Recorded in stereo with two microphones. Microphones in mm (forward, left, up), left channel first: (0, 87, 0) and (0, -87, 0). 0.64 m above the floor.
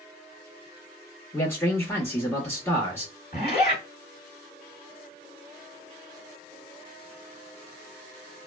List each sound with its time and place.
1.3 s a man speaking: 10° left (ahead or behind), 0.9 m
3.3 s a zipper: 55° left (ahead or behind), 1.5 m